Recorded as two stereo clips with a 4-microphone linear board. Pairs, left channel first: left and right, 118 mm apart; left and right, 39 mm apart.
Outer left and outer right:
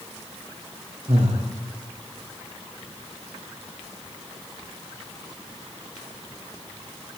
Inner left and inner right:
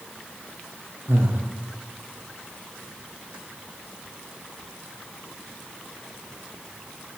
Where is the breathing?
65° right (ahead or behind), 6.5 m.